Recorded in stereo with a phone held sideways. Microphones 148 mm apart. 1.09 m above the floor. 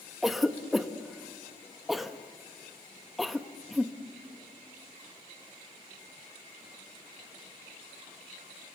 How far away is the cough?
About 1.2 m.